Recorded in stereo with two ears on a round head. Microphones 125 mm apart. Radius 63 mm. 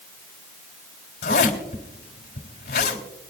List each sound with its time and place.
1.2 s a zipper: 85° left, 3 m